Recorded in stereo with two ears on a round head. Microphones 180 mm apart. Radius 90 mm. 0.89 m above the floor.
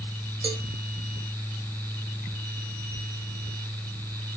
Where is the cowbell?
30° right (ahead or behind), 1.9 m.